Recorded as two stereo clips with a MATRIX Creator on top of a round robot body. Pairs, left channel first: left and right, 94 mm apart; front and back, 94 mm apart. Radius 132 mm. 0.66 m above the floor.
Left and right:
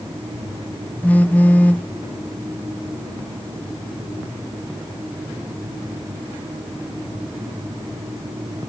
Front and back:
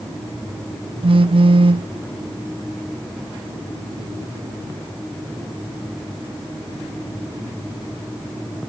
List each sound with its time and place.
1.0 s a phone buzzing: 165° left, 0.9 m